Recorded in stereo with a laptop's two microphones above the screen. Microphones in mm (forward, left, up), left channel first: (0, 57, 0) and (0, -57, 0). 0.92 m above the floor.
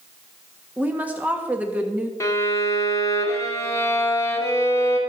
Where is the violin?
25° left (ahead or behind), 1.6 m.